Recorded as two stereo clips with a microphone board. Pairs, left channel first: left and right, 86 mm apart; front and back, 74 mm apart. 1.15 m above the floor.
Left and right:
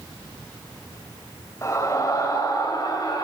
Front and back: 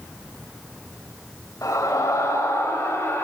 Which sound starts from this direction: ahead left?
A scream, at 1.6 s.